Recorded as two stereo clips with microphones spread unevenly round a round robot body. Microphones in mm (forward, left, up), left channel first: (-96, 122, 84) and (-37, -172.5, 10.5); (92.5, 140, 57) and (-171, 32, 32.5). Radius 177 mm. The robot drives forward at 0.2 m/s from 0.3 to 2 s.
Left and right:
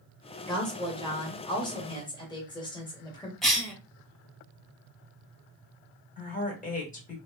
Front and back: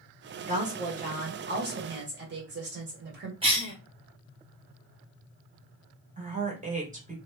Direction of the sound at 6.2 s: 170° left.